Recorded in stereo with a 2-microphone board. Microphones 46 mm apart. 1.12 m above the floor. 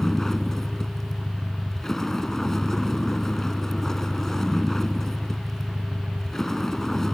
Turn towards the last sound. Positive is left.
turn(degrees=5)  # may be behind; listen again after turning